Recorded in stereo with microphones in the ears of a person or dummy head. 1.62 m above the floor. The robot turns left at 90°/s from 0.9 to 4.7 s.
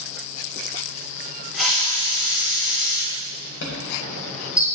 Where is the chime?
80° left, 1.6 m; by 4.7 s 15° right, 1.6 m.